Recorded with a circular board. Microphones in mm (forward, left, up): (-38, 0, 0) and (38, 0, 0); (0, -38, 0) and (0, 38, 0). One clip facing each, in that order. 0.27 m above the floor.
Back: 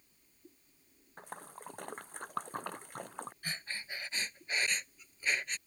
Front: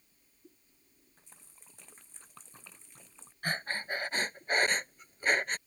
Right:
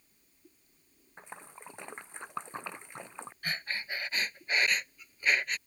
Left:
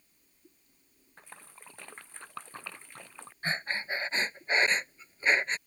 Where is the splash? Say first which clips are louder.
Back 19 dB, right 5 dB; 160° right.